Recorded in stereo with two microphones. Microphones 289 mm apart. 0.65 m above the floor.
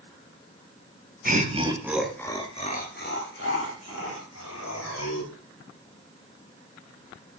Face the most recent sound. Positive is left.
turn(degrees=65)  # may be behind; listen again after turning